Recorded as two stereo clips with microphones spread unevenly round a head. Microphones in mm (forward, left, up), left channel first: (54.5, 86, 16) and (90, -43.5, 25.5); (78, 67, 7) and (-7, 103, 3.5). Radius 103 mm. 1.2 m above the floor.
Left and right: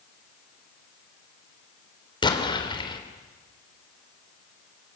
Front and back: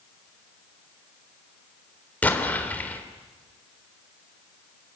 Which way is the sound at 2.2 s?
50° left.